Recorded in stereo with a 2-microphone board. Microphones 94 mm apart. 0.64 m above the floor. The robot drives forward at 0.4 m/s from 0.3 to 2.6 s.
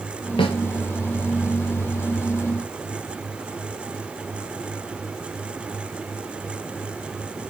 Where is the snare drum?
60° left (ahead or behind), 2 m; by 0.6 s 65° left (ahead or behind), 2 m.